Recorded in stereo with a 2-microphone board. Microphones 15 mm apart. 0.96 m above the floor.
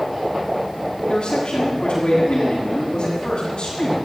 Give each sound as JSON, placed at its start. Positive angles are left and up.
{"t": 1.1, "sound": "a man speaking", "side_deg": 60, "distance_m": 7.5}